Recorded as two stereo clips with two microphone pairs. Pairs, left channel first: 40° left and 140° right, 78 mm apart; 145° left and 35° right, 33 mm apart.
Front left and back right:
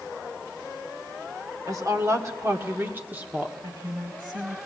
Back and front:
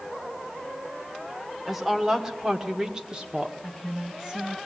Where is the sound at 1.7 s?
110° right, 1.9 m; by 3.5 s 75° right, 1.4 m.